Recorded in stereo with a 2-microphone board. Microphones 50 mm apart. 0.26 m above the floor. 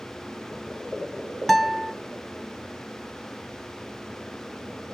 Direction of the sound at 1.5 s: 5° left (ahead or behind).